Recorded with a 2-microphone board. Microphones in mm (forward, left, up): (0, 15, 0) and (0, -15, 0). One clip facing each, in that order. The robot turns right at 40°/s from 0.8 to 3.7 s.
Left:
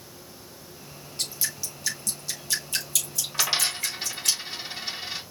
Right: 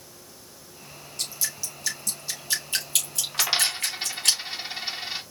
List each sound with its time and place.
1.2 s dripping: 25° left (ahead or behind), 3.5 m; by 4.3 s 70° right (ahead or behind), 3.5 m
3.3 s a dropped coin: 10° right (ahead or behind), 1.8 m; by 5.2 s 25° right (ahead or behind), 1.8 m